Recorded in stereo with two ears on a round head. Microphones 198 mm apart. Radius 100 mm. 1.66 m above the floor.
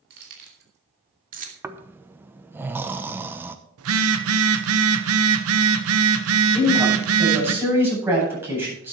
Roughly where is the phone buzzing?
Right.